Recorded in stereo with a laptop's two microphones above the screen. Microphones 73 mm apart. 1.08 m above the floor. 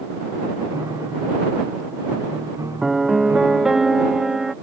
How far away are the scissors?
I don't hear scissors.